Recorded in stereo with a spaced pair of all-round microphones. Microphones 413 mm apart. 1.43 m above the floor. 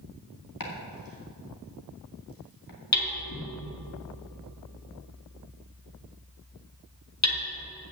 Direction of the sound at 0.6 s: 55° left (ahead or behind).